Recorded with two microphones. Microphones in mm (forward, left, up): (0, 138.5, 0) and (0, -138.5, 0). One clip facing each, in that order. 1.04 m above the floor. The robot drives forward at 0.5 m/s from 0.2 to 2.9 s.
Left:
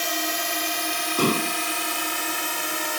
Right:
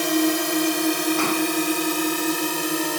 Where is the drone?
60° right (ahead or behind); by 3.0 s 45° right (ahead or behind).